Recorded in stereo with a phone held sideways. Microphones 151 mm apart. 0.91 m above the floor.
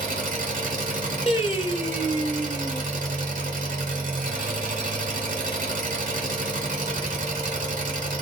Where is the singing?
40° left (ahead or behind), 0.8 m.